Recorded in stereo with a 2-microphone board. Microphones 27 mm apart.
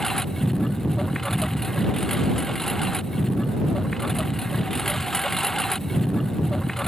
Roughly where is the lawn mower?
Centre.